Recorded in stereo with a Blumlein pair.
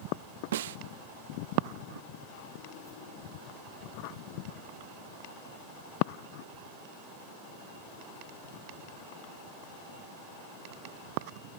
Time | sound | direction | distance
0.5 | a snare drum | 60° right | 0.6 m